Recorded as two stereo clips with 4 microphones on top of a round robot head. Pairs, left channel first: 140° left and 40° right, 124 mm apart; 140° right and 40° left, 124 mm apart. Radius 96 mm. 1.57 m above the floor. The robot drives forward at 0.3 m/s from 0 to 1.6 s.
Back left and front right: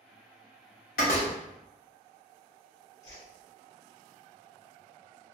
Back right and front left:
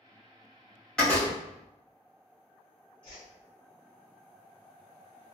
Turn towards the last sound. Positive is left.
turn(degrees=165)